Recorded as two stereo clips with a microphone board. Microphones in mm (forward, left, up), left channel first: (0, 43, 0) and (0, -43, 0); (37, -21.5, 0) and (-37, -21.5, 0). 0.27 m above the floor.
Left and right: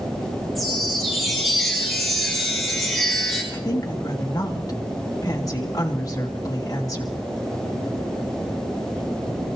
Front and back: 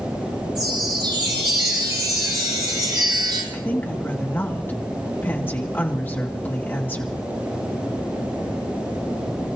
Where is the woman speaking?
55° left, 2 m.